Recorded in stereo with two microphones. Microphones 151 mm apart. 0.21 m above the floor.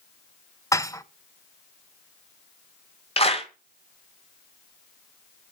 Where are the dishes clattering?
20° left (ahead or behind), 0.7 m.